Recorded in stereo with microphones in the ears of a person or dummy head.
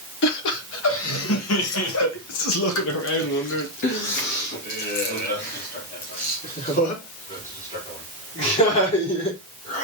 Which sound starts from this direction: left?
Laughter, at 0.2 s.